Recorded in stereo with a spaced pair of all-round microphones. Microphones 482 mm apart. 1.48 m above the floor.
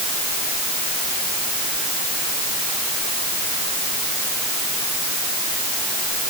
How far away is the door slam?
I don't hear a door slam.